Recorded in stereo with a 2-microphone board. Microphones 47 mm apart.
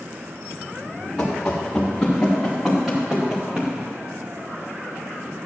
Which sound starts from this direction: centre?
Running footsteps, at 1.2 s.